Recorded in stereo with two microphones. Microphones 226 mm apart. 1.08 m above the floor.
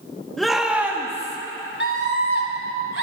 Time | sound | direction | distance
0.4 | a shout | centre (ahead or behind) | 1.8 m
1.8 | a scream | 60° left (ahead or behind) | 4 m